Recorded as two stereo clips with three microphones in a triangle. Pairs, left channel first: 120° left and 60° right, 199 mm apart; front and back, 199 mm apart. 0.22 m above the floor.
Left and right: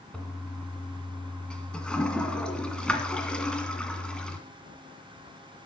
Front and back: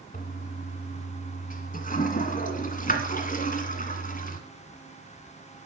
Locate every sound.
0.1 s a toilet flushing: 35° left, 1.7 m